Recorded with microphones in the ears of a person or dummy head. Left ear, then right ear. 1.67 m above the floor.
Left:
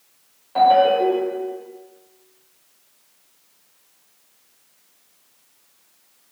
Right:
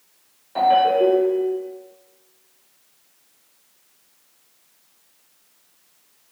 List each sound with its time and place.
0.6 s a ringtone: centre (ahead or behind), 1.6 m